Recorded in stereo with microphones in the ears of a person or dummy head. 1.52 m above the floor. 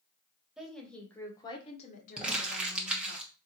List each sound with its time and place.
0.6 s a woman speaking: 5° right (ahead or behind), 1.6 m; by 3.2 s 75° left (ahead or behind), 1.6 m
2.2 s crumpling: 5° right (ahead or behind), 1.2 m